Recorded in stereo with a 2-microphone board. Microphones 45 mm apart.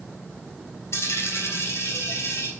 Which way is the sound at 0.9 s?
75° left (ahead or behind).